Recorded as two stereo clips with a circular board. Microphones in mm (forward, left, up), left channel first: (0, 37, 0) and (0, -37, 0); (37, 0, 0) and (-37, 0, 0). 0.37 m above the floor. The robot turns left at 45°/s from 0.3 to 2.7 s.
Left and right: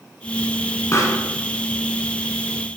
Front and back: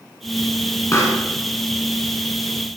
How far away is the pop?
About 0.9 m.